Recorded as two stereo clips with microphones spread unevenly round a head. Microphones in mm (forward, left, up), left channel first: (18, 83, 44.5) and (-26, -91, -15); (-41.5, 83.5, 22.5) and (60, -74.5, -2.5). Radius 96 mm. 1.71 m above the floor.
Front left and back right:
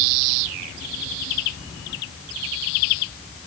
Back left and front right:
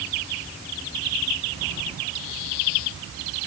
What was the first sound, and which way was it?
Only background noise.